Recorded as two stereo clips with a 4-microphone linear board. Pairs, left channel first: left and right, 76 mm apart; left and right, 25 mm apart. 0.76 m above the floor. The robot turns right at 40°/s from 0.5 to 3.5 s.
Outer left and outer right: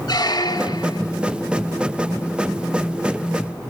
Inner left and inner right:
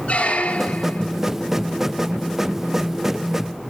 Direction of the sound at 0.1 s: 60° left (ahead or behind).